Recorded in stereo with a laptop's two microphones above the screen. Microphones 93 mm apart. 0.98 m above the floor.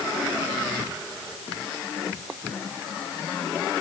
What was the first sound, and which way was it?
Only background noise.